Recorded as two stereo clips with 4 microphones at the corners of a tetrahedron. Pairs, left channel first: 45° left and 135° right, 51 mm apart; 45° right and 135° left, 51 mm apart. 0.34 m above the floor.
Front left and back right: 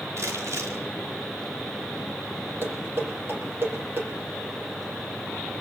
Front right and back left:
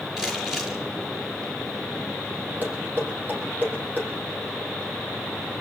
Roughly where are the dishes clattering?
Behind.